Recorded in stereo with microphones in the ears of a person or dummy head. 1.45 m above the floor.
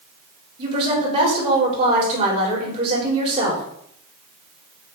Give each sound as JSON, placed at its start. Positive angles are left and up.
{"t": 0.6, "sound": "a woman speaking", "side_deg": -30, "distance_m": 3.0}